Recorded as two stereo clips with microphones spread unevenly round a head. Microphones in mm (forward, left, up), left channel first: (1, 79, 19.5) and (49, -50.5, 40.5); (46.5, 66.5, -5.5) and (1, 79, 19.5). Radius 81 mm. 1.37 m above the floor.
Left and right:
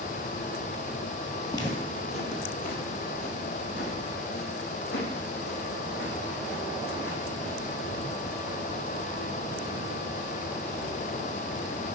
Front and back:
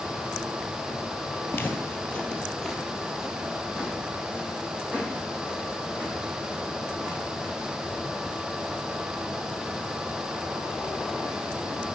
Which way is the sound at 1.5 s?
45° left.